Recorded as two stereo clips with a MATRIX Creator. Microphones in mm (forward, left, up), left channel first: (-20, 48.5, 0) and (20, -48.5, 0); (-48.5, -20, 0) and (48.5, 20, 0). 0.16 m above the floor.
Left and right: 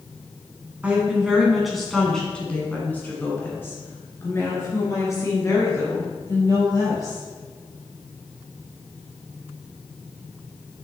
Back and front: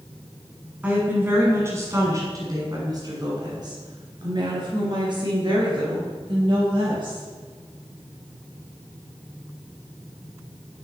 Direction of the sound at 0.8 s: 25° right.